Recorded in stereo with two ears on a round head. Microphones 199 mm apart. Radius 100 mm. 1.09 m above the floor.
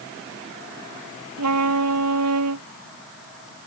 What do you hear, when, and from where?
1.4 s a trumpet: 80° right